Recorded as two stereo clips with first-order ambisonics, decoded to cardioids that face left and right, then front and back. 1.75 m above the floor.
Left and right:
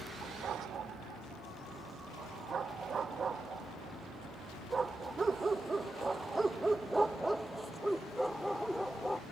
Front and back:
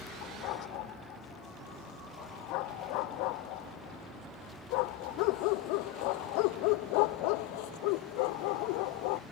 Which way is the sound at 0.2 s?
30° right.